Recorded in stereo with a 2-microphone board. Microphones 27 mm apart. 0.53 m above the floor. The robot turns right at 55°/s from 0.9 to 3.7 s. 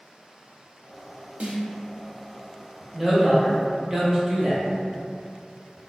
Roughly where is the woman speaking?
Centre.